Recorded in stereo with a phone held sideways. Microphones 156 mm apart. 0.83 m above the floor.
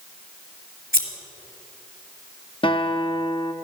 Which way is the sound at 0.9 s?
65° left (ahead or behind).